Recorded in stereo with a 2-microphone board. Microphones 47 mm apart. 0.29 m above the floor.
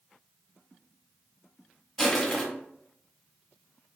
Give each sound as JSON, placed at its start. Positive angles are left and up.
{"t": 2.0, "sound": "crushing", "side_deg": 5, "distance_m": 1.4}